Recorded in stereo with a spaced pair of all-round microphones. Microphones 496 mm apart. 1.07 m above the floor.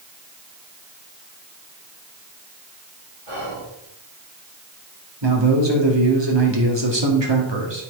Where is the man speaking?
60° right (ahead or behind), 2 m.